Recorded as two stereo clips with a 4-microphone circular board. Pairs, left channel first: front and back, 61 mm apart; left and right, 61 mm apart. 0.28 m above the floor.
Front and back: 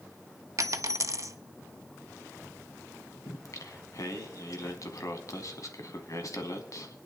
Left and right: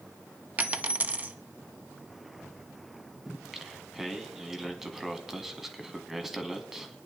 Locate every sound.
0.6 s a dropped coin: 150° right, 0.7 m
3.2 s singing: 5° right, 1.5 m